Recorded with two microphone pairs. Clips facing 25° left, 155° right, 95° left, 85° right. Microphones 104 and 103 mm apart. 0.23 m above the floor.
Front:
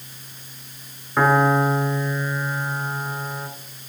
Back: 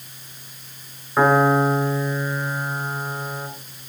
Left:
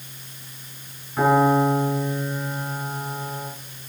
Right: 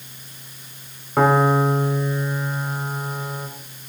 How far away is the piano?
About 1.3 m.